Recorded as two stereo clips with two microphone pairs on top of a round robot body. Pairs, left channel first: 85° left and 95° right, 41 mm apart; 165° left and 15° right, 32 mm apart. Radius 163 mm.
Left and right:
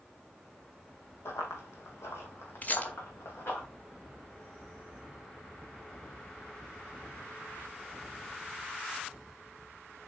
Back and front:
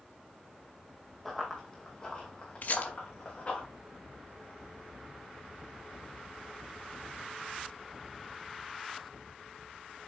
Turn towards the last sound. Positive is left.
turn(degrees=130)